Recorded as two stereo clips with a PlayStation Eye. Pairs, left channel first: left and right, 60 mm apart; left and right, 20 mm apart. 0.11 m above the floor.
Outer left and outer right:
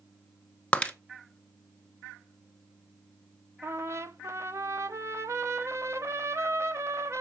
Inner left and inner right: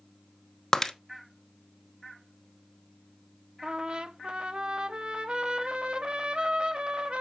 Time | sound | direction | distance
0.7 | breaking glass | 20° left (ahead or behind) | 0.9 m
3.6 | a trumpet | 50° right (ahead or behind) | 0.7 m